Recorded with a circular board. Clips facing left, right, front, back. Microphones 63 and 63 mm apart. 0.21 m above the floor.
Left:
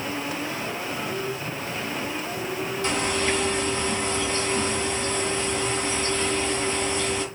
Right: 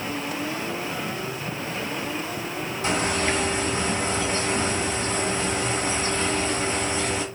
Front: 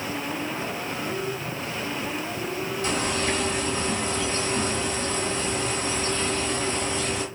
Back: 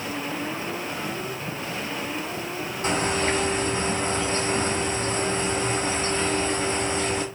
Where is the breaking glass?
I don't hear breaking glass.